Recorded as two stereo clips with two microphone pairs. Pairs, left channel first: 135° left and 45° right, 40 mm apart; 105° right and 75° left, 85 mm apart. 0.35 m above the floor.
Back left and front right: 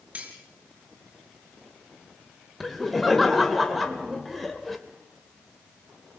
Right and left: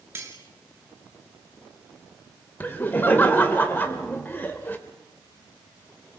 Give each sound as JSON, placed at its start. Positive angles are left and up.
{"t": 0.1, "sound": "cutlery clinking", "azimuth_deg": 15, "distance_m": 3.0}
{"t": 2.6, "sound": "laughter", "azimuth_deg": -130, "distance_m": 1.6}